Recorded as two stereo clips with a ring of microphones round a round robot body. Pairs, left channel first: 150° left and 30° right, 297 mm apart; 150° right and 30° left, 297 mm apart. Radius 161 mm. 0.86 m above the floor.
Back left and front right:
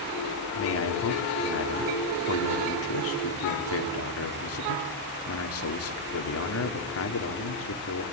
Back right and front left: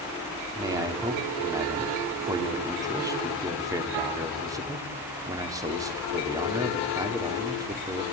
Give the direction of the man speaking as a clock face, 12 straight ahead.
8 o'clock.